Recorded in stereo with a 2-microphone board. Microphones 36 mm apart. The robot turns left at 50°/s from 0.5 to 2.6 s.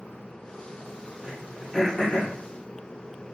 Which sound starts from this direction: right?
Throat clearing, at 1.2 s.